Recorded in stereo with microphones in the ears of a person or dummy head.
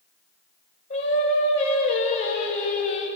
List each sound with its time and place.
0.9 s singing: 20° left (ahead or behind), 1.5 m